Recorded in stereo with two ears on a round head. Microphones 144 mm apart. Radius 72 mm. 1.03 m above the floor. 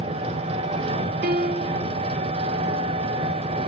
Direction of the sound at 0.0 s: 35° right (ahead or behind).